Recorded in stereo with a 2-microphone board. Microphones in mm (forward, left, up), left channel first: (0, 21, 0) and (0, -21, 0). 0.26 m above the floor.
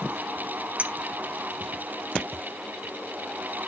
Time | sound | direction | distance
0.8 | a clink | 30° right (ahead or behind) | 0.6 m